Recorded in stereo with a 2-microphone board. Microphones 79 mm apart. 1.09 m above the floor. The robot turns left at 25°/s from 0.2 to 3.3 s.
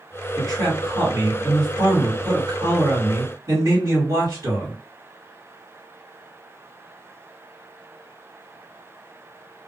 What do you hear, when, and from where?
0.4 s a man speaking: 45° right, 1.8 m; by 4.8 s 115° right, 1.8 m